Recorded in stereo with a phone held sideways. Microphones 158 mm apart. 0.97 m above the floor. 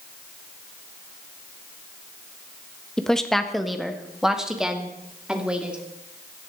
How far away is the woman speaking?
About 1.3 m.